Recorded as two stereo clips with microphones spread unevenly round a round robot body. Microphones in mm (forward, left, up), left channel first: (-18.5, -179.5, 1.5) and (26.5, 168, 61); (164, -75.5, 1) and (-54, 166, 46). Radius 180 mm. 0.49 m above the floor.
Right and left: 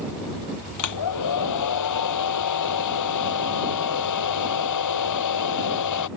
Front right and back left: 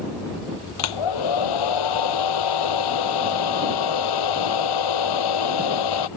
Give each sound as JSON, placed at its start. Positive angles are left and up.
{"t": 0.8, "sound": "a hair dryer", "azimuth_deg": -60}